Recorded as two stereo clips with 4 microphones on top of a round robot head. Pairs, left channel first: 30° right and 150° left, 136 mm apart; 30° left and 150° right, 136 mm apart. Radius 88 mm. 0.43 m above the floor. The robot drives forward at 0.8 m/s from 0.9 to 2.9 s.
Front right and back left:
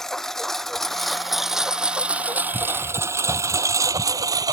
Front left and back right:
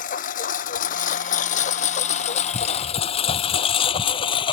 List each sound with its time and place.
0.0 s a lawn mower: 55° left; by 4.5 s 85° left